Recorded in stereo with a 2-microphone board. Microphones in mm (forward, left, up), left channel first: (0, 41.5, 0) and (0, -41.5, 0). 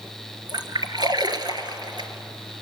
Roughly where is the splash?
Right.